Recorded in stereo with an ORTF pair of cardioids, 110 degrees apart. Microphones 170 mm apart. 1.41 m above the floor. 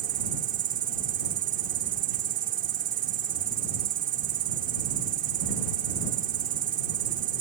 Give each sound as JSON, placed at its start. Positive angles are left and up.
{"t": 0.0, "sound": "an insect", "azimuth_deg": -60}